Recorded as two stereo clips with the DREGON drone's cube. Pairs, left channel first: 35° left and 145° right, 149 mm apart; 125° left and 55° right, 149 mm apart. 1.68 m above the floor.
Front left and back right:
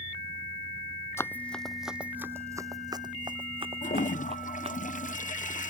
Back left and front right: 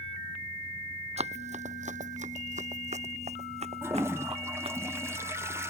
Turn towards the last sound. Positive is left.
turn(degrees=15)